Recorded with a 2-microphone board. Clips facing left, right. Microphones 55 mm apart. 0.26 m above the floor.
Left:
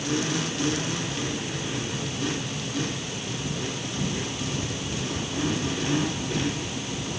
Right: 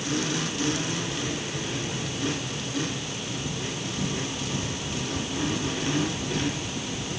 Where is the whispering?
No whispering in this recording.